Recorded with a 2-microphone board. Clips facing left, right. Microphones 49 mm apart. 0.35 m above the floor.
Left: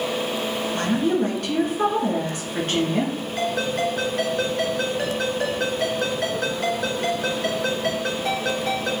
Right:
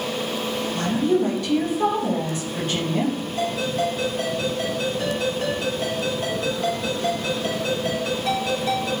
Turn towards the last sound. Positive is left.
turn(degrees=75)  # may be behind; listen again after turning